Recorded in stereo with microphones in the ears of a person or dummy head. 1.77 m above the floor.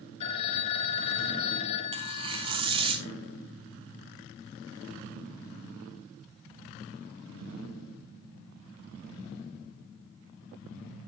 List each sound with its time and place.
0.2 s a phone ringing: 35° left (ahead or behind), 1.8 m
1.9 s tearing paper: 25° right (ahead or behind), 0.8 m